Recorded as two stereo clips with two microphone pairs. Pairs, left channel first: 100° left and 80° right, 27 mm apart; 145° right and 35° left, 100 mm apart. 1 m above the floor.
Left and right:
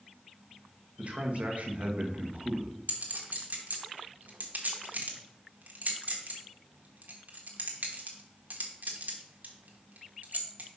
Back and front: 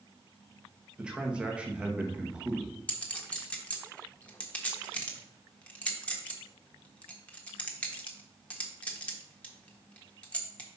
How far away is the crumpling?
I don't hear crumpling.